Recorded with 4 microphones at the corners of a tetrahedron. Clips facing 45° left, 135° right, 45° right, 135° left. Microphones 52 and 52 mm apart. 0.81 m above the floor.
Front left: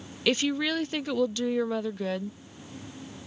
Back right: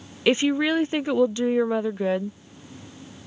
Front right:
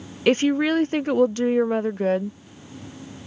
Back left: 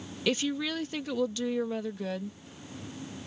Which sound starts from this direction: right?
A woman speaking, at 0.3 s.